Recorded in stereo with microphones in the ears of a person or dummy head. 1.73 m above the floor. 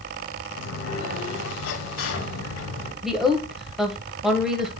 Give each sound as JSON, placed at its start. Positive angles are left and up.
{"t": 0.5, "sound": "a sliding door", "side_deg": 70, "distance_m": 2.5}
{"t": 3.0, "sound": "a woman speaking", "side_deg": 0, "distance_m": 1.3}